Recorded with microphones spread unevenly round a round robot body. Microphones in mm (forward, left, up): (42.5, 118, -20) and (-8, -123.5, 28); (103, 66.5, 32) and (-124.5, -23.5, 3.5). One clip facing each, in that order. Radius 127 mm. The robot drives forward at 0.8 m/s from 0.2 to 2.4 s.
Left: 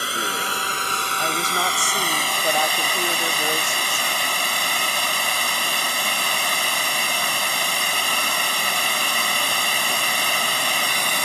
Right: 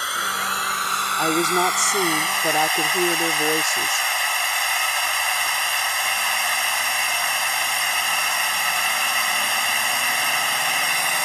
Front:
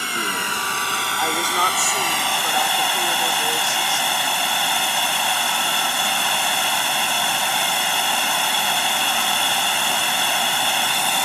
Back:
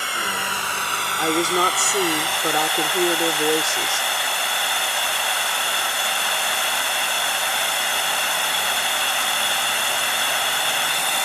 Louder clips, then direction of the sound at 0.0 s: Left 5 dB, front 3 dB; 15° left.